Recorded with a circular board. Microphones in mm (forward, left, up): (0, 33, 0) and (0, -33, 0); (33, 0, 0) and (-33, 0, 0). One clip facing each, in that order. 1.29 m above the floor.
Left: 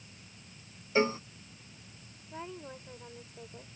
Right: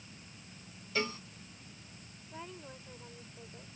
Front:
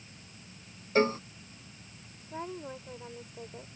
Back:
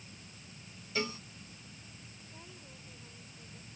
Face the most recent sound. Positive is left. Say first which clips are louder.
# left 4 dB, front 18 dB
turn(degrees=15)